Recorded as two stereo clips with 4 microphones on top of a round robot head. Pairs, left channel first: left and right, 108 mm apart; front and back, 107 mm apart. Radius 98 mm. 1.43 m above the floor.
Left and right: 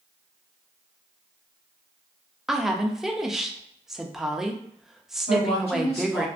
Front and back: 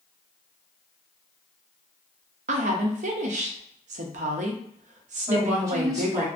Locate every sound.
2.5 s a woman speaking: 175° right, 0.5 m
5.3 s a woman speaking: 120° left, 1.5 m